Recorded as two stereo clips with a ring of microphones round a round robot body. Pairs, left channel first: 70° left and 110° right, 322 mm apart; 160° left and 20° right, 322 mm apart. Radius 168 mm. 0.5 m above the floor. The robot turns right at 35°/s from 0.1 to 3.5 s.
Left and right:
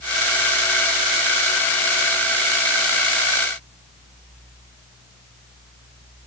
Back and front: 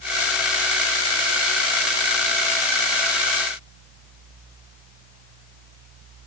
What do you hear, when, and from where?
Only background noise.